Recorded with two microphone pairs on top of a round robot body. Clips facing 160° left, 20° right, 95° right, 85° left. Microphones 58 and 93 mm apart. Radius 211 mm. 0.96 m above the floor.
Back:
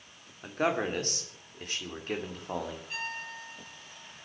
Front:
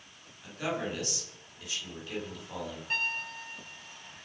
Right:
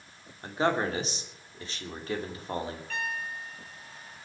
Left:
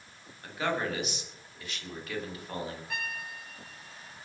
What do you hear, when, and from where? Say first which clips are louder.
0.4 s a man speaking: back 5 dB, right 4 dB; 155° right, 3 m
2.9 s a piano: front 4 dB, right 4 dB; 5° left, 5 m